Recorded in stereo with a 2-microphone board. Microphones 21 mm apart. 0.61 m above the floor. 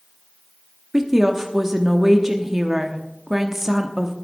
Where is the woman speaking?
20° right (ahead or behind), 0.9 m.